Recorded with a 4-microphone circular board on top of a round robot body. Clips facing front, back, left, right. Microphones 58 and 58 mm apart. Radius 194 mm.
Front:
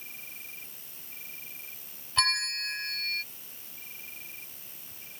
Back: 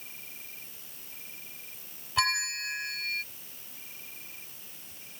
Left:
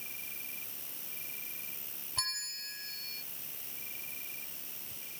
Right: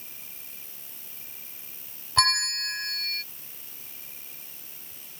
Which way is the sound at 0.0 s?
60° left.